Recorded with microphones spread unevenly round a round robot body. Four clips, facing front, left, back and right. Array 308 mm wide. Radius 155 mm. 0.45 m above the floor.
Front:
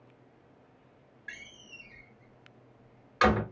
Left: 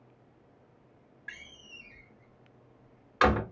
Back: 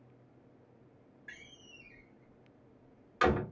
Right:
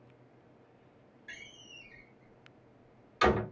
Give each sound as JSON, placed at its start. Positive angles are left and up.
{"t": 1.3, "sound": "a door slam", "azimuth_deg": 65, "distance_m": 1.5}